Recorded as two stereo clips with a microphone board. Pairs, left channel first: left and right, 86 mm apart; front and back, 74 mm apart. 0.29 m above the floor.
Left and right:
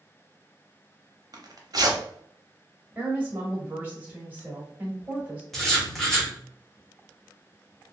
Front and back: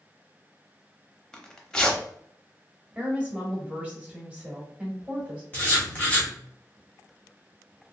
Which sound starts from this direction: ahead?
Writing, at 5.5 s.